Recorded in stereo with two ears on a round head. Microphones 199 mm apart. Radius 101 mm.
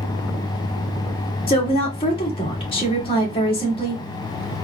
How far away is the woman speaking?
About 1.6 m.